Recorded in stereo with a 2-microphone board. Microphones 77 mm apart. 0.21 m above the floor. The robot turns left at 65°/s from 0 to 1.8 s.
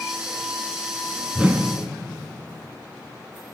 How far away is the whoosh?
About 0.9 m.